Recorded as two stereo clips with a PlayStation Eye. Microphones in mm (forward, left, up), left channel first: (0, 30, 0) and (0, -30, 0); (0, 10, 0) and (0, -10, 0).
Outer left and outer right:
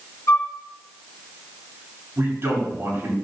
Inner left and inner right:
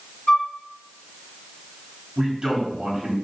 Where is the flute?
55° left (ahead or behind), 2 m.